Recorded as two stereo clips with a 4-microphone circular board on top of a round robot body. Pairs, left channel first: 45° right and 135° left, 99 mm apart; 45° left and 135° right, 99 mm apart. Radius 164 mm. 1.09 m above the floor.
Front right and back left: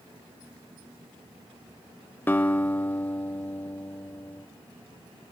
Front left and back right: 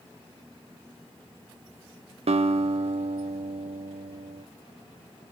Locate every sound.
2.3 s a guitar: 115° right, 0.7 m